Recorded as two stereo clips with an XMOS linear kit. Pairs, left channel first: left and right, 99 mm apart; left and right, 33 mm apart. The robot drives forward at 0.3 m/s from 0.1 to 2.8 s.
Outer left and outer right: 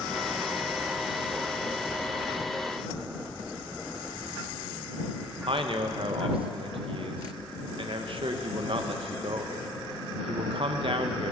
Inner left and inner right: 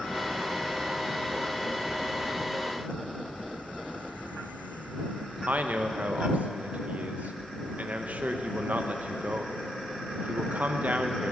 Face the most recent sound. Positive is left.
turn(degrees=-65)  # may be behind; listen again after turning